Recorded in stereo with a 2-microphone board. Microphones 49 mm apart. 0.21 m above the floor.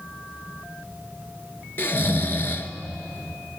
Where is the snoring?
45° left (ahead or behind), 1.3 m.